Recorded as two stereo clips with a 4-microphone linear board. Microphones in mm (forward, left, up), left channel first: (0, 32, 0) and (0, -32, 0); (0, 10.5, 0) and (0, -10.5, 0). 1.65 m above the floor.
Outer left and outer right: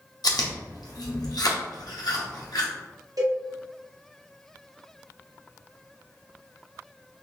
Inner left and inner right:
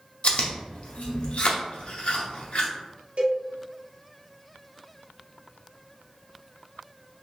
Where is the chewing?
80° left, 0.8 m.